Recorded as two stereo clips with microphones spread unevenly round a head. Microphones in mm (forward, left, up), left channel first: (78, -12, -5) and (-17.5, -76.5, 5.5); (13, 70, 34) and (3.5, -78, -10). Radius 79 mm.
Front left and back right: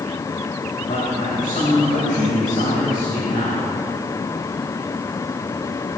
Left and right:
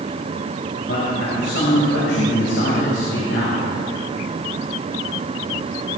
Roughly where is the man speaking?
Left.